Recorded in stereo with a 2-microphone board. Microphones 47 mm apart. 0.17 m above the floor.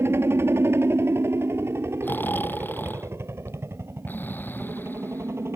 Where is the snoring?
45° left (ahead or behind).